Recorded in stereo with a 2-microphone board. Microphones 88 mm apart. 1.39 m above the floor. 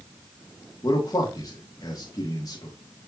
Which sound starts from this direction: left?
A man speaking, at 0.8 s.